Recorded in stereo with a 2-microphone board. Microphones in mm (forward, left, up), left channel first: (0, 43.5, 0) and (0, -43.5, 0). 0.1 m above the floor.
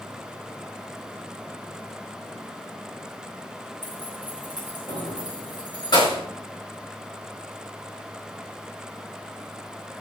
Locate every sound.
3.8 s keys jangling: 55° left (ahead or behind), 4.5 m; by 6.2 s 60° left (ahead or behind), 6.5 m